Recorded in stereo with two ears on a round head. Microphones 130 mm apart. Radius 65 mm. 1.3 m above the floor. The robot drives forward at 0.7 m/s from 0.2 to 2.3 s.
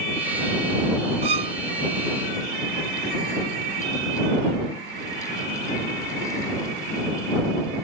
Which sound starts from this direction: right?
A violin, at 1.2 s.